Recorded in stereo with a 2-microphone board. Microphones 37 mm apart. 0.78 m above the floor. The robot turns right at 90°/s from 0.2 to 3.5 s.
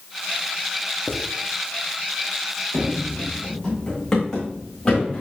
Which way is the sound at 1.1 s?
50° left (ahead or behind).